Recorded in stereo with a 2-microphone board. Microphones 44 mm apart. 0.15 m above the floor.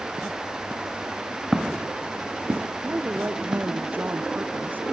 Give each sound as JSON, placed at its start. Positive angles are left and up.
{"t": 1.5, "sound": "footsteps", "side_deg": -10}
{"t": 2.8, "sound": "a woman speaking", "side_deg": -40}